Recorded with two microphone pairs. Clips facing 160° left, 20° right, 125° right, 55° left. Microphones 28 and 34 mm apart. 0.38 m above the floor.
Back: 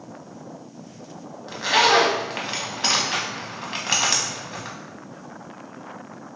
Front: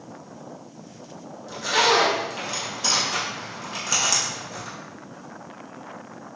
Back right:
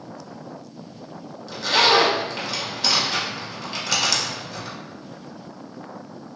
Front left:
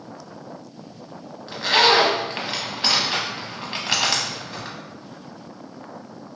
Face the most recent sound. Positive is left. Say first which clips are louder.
# back 2 dB, front left 1 dB
turn(degrees=120)